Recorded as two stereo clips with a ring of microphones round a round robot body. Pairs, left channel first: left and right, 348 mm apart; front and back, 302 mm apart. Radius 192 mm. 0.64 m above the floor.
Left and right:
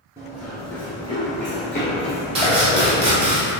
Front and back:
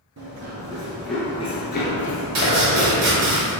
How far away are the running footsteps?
About 0.7 m.